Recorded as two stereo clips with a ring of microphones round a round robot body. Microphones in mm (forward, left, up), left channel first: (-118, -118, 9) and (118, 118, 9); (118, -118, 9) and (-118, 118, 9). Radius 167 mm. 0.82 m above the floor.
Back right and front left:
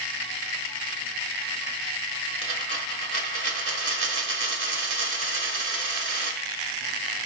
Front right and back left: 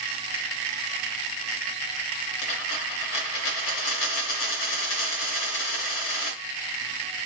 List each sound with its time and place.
2.4 s a dropped coin: 10° right, 1.3 m